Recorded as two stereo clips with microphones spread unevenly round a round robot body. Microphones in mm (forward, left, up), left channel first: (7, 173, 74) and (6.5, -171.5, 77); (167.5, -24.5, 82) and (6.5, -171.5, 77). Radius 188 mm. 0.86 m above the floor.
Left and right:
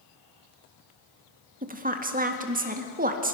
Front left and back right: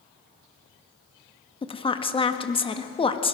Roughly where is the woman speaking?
Ahead right.